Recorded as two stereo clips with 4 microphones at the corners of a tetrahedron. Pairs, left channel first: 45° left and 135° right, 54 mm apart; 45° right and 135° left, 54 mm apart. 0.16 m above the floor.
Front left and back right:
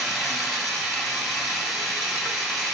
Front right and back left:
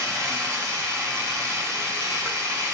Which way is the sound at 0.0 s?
135° left.